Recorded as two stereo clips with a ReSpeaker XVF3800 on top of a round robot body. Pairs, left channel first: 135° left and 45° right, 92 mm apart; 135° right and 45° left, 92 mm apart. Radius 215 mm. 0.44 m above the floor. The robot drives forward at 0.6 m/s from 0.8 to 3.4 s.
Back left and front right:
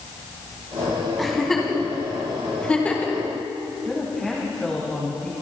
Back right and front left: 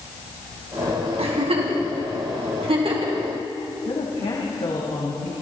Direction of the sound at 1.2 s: 50° left.